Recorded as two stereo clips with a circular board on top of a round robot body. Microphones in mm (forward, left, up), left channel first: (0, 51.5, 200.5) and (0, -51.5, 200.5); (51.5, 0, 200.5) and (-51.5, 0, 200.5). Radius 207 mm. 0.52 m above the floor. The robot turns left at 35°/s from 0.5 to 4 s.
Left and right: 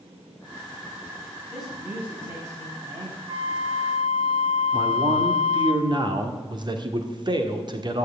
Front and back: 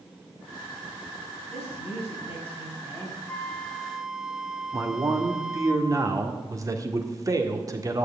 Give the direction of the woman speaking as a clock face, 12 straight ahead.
12 o'clock.